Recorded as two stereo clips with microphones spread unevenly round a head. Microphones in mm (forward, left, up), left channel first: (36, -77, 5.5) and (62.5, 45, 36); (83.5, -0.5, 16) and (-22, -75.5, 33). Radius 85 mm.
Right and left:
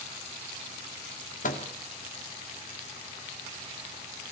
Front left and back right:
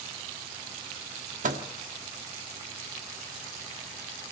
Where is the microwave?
125° right, 2.0 m.